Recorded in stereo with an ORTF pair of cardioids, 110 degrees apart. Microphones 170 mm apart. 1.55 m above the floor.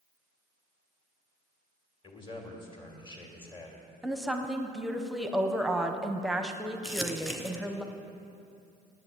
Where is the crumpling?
Straight ahead, 1.4 m.